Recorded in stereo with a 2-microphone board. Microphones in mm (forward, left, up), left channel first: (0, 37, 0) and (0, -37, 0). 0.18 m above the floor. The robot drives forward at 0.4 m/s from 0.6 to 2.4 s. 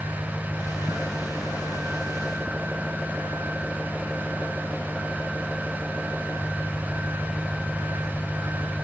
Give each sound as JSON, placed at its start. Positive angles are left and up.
{"t": 0.0, "sound": "an engine running", "side_deg": 5}